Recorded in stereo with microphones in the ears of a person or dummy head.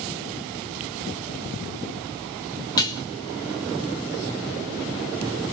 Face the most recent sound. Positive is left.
turn(degrees=25)  # may be behind; listen again after turning